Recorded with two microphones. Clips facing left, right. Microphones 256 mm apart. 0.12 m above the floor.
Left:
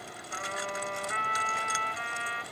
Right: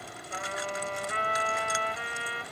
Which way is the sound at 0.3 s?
45° right (ahead or behind).